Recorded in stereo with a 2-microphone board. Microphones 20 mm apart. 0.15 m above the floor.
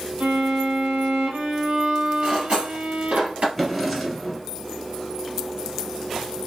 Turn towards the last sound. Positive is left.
turn(degrees=0)  # may be behind; listen again after turning